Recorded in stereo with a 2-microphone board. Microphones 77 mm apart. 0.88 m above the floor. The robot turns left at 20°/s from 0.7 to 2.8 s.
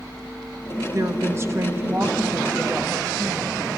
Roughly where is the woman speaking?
Behind right.